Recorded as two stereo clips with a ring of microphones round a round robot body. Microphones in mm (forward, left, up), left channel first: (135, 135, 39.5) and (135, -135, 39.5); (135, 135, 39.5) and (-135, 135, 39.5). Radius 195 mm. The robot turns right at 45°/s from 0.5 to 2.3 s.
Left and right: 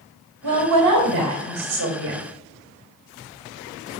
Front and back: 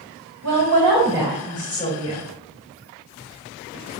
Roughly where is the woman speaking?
Behind right.